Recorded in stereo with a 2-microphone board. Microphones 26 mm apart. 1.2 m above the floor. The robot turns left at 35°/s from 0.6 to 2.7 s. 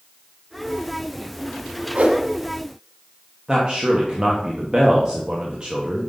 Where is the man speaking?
35° right (ahead or behind), 0.9 m.